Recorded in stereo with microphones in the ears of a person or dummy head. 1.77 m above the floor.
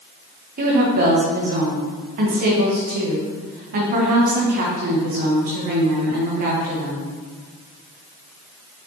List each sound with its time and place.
0.6 s a woman speaking: 35° right (ahead or behind), 1.4 m